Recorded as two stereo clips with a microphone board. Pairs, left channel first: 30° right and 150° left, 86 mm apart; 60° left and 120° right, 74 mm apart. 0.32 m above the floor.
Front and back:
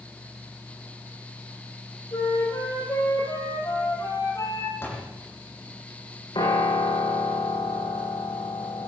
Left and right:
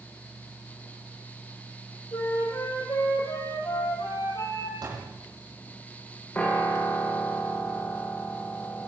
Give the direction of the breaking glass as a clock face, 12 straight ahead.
I don't hear breaking glass.